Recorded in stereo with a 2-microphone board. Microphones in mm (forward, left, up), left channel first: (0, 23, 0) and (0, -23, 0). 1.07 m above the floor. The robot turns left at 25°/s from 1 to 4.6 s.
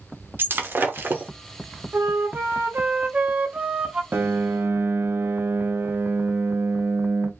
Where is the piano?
55° right (ahead or behind), 1.0 m; by 7.3 s 60° right (ahead or behind), 1.0 m.